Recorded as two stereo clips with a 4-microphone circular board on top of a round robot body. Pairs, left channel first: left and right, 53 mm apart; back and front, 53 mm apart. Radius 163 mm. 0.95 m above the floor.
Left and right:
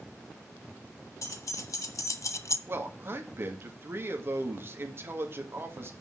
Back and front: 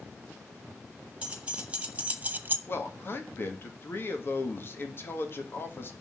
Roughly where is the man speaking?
Behind right.